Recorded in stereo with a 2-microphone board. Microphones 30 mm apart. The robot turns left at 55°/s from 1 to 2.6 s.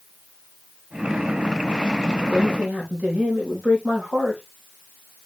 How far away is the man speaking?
About 5 m.